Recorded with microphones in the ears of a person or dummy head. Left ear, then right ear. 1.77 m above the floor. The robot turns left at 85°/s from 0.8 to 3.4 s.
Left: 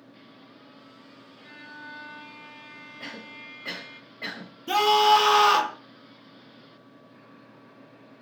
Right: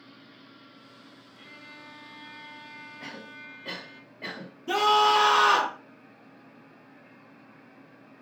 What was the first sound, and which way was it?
A violin, 160° right.